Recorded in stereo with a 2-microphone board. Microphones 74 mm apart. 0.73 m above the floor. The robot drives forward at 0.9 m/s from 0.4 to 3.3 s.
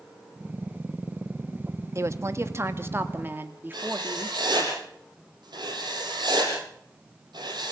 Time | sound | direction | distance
1.9 | a woman speaking | 40° right (ahead or behind) | 1.3 m
3.7 | writing | 75° right (ahead or behind) | 8 m